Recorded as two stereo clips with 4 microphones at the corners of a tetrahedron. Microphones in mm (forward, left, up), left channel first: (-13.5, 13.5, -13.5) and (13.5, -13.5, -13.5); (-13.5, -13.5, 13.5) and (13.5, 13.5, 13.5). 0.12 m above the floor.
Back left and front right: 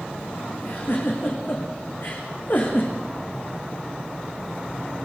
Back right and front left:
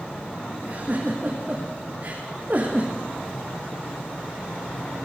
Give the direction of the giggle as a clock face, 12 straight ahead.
9 o'clock.